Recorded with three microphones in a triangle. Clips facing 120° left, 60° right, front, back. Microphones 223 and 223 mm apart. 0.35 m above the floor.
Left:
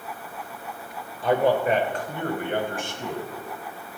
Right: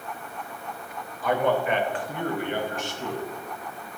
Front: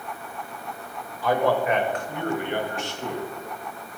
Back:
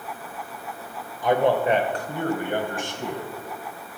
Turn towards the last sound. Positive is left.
turn(degrees=150)